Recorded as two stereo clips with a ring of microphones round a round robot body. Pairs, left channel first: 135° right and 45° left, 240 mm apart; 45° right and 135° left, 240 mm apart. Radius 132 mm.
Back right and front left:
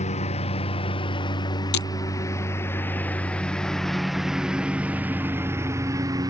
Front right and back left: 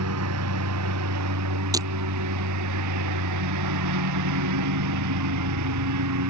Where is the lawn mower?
160° left; by 6.3 s 120° left.